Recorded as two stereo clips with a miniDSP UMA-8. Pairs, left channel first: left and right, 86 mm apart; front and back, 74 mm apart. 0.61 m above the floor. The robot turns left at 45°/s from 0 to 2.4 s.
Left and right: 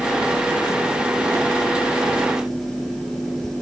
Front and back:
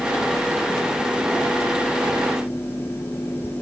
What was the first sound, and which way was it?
Only background noise.